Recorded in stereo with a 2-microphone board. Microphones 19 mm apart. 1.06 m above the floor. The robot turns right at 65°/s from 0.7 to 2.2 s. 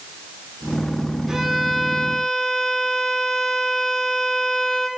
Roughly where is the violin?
Ahead right.